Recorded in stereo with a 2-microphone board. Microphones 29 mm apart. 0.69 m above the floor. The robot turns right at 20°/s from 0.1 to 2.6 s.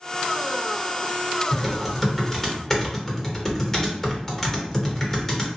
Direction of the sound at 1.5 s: 10° right (ahead or behind).